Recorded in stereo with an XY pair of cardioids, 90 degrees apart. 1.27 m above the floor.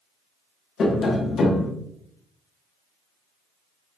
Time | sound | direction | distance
0.8 | tapping | 60° left | 1.2 m